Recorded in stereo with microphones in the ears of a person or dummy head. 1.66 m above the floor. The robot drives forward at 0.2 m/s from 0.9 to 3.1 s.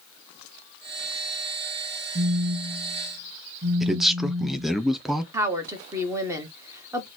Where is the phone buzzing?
35° right (ahead or behind), 0.6 m; by 4.8 s 25° right (ahead or behind), 0.7 m.